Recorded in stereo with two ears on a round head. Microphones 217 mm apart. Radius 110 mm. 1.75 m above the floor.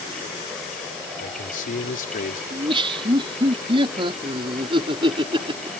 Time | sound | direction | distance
1.2 | a man speaking | 35° left (ahead or behind) | ?
2.5 | laughter | 20° right (ahead or behind) | ?